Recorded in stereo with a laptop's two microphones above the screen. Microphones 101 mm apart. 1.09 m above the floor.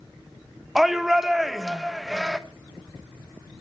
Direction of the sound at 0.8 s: 5° right (ahead or behind).